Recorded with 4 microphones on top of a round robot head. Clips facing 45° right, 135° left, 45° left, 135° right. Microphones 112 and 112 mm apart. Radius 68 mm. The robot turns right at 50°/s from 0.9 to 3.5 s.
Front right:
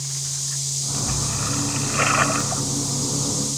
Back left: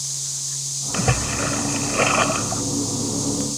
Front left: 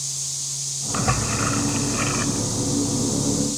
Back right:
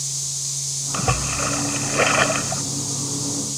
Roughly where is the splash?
Behind left.